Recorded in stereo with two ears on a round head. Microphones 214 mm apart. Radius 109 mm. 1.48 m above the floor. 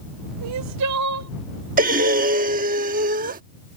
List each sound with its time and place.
0.4 s crying: 80° right
1.8 s breathing: 35° right (ahead or behind)